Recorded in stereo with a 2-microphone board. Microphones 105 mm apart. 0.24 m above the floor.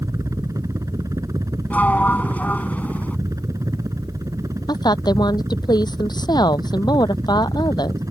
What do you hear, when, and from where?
0.0 s a helicopter: 30° right (ahead or behind)
1.7 s a sliding door: 15° left (ahead or behind)
4.7 s a woman speaking: 40° left (ahead or behind)